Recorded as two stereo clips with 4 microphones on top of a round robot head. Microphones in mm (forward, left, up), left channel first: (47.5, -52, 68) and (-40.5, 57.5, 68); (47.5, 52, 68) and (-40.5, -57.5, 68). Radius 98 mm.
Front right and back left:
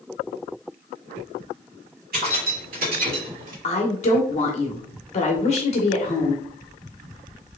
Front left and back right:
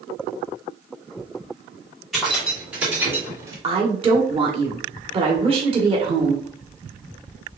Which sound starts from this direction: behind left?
Keys jangling, at 2.1 s.